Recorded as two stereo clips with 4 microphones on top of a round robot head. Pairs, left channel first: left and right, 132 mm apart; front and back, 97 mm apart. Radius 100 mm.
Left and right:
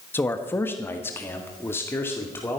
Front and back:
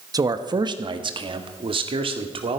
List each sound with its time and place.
0.1 s a man speaking: 155° left, 1.1 m; by 2.6 s 165° left, 2.5 m